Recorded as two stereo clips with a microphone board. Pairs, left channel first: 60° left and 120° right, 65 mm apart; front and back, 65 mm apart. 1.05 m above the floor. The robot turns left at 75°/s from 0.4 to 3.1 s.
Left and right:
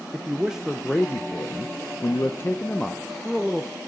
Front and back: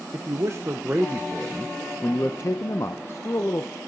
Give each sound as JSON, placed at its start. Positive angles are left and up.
{"t": 0.1, "sound": "a man speaking", "azimuth_deg": 170, "distance_m": 0.7}